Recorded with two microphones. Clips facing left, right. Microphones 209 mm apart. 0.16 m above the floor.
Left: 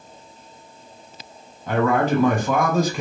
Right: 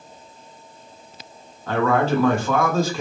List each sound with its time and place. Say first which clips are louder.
1.7 s a man speaking: even; 15° left (ahead or behind), 1.2 m